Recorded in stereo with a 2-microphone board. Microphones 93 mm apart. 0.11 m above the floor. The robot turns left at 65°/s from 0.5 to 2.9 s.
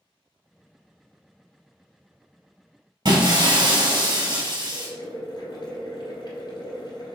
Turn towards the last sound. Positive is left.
turn(degrees=50)  # may be behind; listen again after turning